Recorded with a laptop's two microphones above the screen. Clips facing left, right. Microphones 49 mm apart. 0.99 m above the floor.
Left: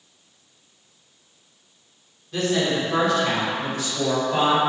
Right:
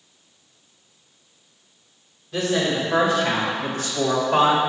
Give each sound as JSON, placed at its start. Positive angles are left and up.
{"t": 2.3, "sound": "a woman speaking", "side_deg": -5, "distance_m": 2.5}